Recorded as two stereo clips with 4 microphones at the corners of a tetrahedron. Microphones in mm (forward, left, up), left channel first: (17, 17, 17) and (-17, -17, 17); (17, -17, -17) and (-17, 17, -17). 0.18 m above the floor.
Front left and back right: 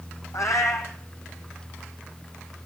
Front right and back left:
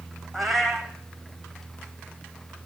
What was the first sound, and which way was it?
A cat meowing, 40° left.